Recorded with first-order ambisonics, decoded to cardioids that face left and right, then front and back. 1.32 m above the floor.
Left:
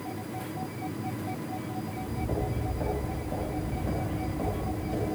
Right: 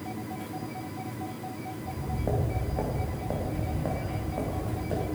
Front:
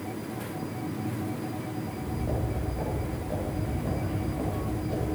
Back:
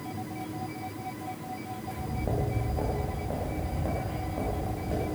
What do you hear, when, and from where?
1.8 s footsteps: 105° right, 4.5 m; by 5.0 s 110° right, 7.5 m